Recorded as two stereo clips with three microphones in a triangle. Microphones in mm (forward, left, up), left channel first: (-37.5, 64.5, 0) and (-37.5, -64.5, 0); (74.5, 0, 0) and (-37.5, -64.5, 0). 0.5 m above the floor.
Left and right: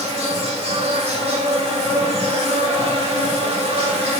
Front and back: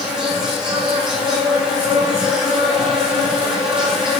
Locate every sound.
0.0 s an insect: 65° right, 2.5 m